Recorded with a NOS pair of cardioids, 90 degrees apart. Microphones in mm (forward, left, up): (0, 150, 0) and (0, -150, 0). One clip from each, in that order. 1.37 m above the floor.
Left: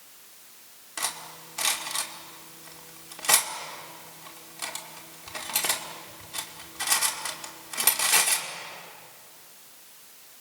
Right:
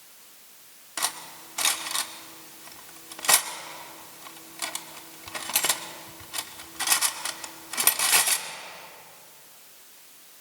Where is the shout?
No shout in this recording.